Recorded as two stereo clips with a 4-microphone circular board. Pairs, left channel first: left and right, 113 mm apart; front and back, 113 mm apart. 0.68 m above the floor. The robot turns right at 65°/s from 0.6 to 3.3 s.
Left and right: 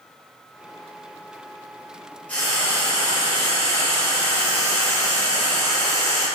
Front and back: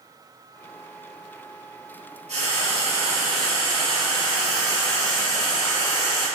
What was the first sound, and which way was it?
Frying, 165° left.